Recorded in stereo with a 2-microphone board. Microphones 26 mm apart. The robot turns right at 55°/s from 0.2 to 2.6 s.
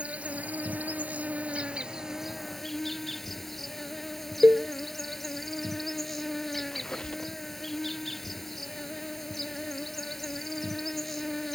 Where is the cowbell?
85° right.